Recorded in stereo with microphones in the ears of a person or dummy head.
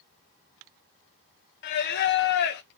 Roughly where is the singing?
Left.